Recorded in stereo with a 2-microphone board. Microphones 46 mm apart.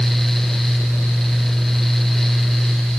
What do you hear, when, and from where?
Only background noise.